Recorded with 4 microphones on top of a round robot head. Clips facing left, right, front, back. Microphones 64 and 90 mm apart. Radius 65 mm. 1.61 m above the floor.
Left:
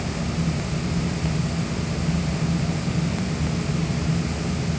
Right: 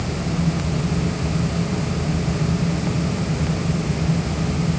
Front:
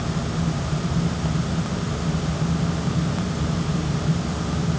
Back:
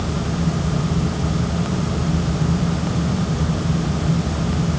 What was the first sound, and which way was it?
Only background noise.